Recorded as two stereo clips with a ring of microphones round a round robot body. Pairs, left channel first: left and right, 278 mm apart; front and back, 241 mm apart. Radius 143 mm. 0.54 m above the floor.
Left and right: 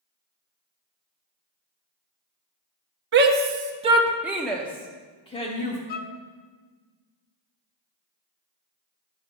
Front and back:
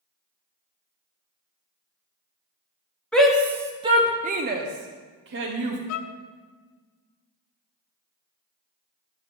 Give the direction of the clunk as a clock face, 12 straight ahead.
No clunk in this recording.